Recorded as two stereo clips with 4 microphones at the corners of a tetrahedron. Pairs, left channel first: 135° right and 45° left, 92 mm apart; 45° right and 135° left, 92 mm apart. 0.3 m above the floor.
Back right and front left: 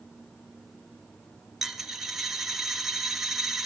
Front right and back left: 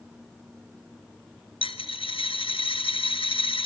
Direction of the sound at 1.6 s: 40° right.